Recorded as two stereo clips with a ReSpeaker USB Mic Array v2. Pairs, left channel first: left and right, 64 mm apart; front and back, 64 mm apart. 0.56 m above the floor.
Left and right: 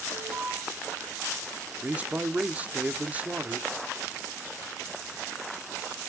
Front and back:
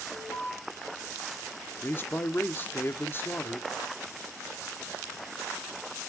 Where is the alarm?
40° right, 3.5 m.